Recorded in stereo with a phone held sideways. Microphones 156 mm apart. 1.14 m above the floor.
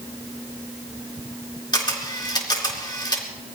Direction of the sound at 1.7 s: 30° left (ahead or behind).